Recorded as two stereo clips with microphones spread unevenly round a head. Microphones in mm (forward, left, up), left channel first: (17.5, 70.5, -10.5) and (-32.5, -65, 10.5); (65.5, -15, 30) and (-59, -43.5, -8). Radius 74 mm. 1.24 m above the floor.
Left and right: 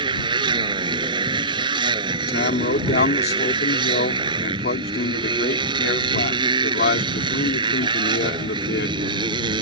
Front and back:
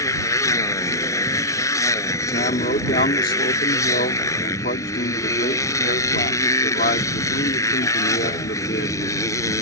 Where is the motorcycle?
50° right.